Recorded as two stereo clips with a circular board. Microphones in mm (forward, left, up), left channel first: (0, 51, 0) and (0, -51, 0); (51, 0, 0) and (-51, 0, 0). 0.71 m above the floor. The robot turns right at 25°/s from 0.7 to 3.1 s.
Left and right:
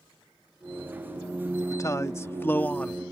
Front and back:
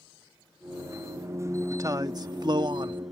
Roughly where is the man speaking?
Behind left.